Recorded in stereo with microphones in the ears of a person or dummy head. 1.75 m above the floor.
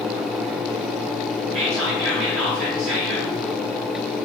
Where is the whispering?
65° right (ahead or behind), 1.0 m.